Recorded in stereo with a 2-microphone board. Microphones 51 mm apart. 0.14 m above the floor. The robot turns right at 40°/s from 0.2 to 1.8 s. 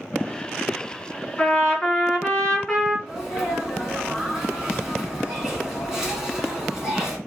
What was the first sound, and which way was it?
A trumpet, 15° left (ahead or behind).